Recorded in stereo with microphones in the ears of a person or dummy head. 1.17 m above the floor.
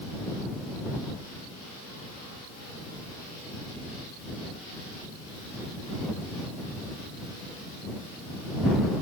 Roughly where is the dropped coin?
I don't hear a dropped coin.